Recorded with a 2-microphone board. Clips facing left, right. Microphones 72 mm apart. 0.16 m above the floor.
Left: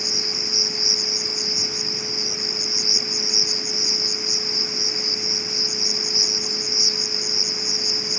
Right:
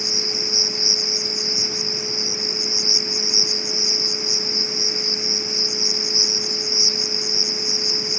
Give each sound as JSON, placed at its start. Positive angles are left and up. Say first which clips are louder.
{"t": 0.0, "sound": "an insect", "louder": "right 3 dB", "side_deg": -20}